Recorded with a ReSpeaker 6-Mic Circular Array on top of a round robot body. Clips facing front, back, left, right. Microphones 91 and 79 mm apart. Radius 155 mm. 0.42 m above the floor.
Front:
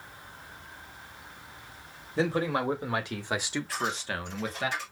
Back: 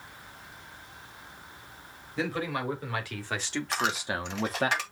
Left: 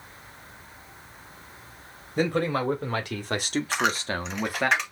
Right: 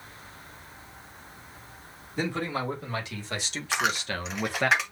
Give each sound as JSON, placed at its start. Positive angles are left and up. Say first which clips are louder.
{"t": 2.2, "sound": "a man speaking", "louder": "front 4 dB, left 5 dB", "azimuth_deg": 55, "distance_m": 2.5}
{"t": 3.7, "sound": "a dropped coin", "louder": "back 4 dB, right 1 dB", "azimuth_deg": -175, "distance_m": 0.8}